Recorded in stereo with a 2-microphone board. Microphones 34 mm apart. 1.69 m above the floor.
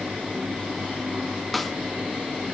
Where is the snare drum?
Centre (ahead or behind), 2.0 m.